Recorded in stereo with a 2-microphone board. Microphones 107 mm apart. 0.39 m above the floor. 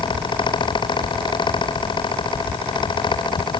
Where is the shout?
I don't hear a shout.